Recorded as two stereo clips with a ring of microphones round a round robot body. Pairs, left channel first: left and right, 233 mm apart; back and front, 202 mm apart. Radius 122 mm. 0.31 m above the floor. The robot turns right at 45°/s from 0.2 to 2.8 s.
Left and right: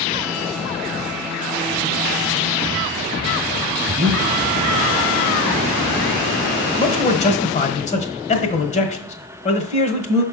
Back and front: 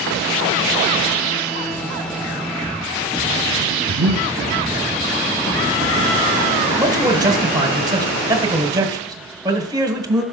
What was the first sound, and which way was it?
Breathing, 35° right.